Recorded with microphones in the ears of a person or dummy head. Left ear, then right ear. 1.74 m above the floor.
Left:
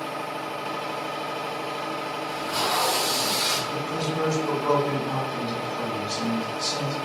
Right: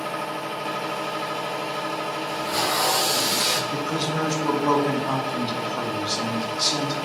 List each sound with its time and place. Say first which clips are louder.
0.0 s a machine running: right 2 dB; 30° right (ahead or behind), 0.8 m
2.3 s tape being pulled: right 1 dB; 25° right (ahead or behind), 1.5 m
3.7 s a man speaking: right 2 dB; 50° right (ahead or behind), 0.7 m